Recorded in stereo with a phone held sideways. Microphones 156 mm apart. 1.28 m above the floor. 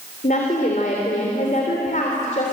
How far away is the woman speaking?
About 3.5 m.